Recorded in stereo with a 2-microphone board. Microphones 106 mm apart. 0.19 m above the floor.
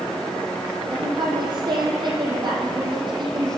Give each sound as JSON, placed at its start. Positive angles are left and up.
{"t": 0.9, "sound": "a woman speaking", "side_deg": -40, "distance_m": 6.5}